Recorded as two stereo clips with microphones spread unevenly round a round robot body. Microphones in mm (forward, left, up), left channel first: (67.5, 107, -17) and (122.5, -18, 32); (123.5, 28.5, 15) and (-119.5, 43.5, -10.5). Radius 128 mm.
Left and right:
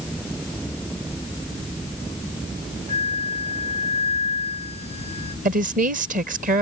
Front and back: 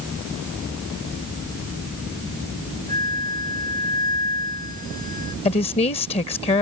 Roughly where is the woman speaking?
Ahead right.